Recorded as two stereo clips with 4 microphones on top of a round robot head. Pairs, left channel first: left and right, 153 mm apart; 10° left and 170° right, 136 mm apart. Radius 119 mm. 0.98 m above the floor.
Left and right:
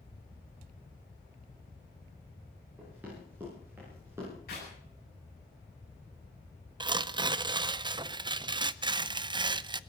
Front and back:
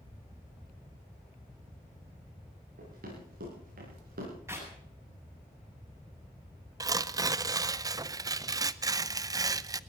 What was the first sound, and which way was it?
Running footsteps, 170° right.